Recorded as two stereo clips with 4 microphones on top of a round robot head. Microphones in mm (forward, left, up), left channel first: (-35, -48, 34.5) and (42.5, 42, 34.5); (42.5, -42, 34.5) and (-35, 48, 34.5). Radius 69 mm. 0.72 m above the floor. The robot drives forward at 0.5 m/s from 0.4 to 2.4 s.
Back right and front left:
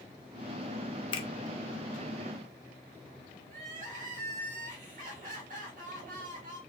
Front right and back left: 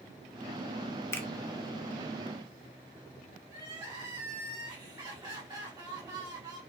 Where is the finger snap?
110° right, 0.7 m; by 1.3 s 120° right, 0.7 m.